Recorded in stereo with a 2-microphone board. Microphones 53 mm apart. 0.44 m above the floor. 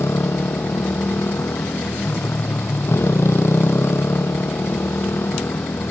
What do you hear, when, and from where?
0.0 s a motorcycle: 60° left (ahead or behind)